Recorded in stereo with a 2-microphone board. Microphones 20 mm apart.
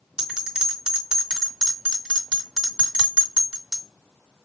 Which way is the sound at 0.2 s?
50° right (ahead or behind).